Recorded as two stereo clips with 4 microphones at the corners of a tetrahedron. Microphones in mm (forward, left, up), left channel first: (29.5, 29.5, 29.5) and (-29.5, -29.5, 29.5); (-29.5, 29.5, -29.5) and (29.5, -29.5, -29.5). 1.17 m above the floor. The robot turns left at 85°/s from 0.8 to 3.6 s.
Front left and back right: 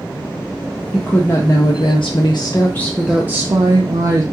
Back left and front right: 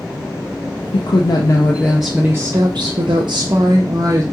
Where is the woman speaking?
135° left, 0.5 m; by 4.2 s 95° right, 0.5 m.